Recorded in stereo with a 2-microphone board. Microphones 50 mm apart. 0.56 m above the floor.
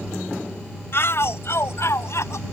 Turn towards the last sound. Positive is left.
turn(degrees=65)  # may be behind; listen again after turning